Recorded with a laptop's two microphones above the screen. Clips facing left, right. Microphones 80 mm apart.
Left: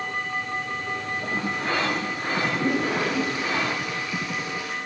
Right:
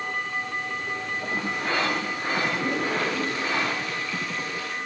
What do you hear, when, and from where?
2.4 s a toilet flushing: 15° left (ahead or behind), 9.5 m